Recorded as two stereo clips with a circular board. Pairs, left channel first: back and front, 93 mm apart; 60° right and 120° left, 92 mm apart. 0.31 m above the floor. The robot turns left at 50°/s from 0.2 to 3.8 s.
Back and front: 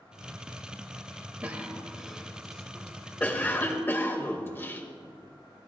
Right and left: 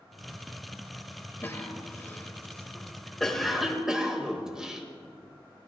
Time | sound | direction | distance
1.4 | a cough | 45° right | 1.2 m